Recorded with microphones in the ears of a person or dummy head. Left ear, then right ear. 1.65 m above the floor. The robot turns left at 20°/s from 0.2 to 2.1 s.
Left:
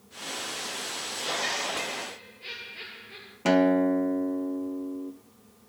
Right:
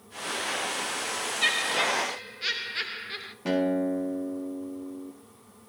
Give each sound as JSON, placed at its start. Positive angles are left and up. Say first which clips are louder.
{"t": 1.4, "sound": "laughter", "louder": "right 5 dB", "side_deg": -40, "distance_m": 0.7}
{"t": 3.5, "sound": "a guitar", "louder": "left 4 dB", "side_deg": 40, "distance_m": 0.6}